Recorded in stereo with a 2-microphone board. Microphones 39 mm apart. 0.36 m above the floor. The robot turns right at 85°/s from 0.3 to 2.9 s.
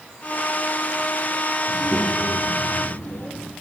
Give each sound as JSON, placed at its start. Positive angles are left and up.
{"t": 1.7, "sound": "a child speaking", "azimuth_deg": 10, "distance_m": 9.0}